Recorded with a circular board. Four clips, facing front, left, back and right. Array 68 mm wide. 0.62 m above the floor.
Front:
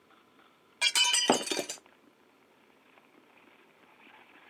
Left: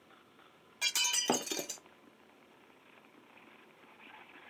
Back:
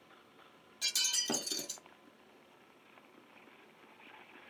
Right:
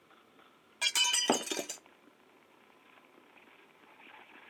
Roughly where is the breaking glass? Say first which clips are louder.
Right 3 dB, front 13 dB; ahead.